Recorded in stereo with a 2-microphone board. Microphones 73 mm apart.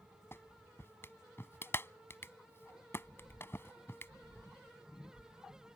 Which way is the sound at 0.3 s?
30° left (ahead or behind).